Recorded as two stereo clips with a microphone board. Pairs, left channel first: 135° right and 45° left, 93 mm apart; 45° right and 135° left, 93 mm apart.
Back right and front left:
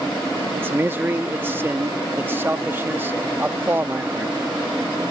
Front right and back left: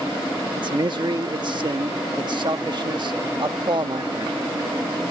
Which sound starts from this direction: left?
A man speaking, at 0.6 s.